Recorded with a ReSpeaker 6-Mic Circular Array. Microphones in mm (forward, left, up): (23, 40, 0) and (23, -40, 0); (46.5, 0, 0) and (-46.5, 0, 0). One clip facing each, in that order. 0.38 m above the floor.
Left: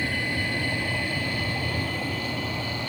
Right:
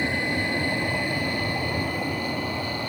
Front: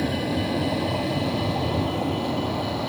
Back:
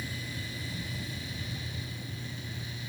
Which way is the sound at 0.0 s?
20° right.